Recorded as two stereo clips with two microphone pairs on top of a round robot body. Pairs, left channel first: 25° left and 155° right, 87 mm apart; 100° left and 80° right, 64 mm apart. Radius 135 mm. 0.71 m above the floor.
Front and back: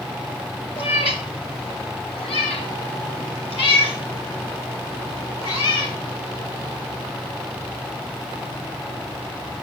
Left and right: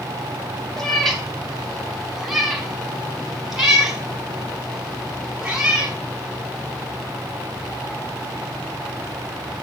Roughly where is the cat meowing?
Ahead left.